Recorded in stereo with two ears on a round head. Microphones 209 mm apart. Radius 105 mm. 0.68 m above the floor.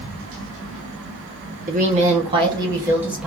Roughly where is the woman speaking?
Right.